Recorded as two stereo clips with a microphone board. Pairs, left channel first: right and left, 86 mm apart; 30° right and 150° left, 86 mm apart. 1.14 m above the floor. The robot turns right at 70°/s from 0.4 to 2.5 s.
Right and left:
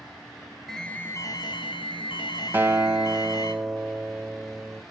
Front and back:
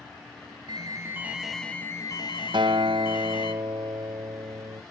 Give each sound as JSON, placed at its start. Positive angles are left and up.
{"t": 0.7, "sound": "an alarm", "azimuth_deg": -175, "distance_m": 2.5}
{"t": 2.5, "sound": "a guitar", "azimuth_deg": 160, "distance_m": 1.1}